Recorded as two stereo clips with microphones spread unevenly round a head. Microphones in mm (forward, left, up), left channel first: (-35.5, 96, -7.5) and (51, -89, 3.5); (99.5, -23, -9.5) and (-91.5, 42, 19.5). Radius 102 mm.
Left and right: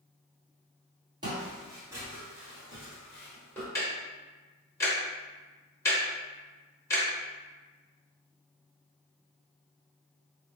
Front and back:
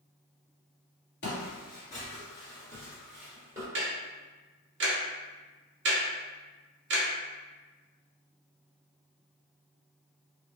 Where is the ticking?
165° right, 0.8 m.